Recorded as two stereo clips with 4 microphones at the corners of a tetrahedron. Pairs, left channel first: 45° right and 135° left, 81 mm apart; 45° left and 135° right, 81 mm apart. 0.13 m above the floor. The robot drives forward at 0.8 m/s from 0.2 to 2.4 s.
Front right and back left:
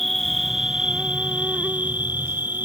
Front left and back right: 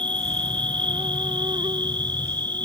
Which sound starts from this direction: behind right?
An insect, at 0.0 s.